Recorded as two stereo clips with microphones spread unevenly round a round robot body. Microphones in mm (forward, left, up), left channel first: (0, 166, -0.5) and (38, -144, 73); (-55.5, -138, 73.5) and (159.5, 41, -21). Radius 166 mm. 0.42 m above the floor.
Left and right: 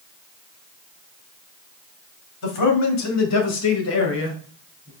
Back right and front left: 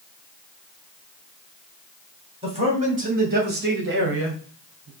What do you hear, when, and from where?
2.4 s a man speaking: 100° left, 2.5 m; by 4.9 s 45° left, 2 m